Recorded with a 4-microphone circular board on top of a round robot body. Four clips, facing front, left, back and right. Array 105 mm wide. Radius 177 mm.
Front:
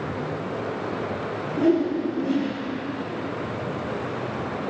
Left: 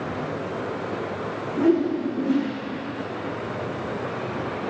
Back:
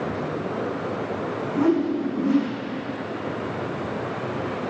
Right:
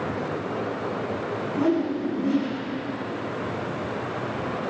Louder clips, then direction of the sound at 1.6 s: Left 4 dB, even; 170° right.